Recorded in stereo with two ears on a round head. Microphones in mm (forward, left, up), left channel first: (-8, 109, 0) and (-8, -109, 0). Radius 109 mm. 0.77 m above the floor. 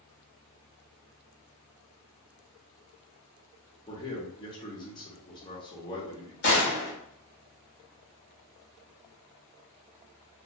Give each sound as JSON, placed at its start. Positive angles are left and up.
{"t": 3.9, "sound": "a man speaking", "side_deg": 20, "distance_m": 0.9}
{"t": 6.4, "sound": "a gunshot", "side_deg": 50, "distance_m": 1.5}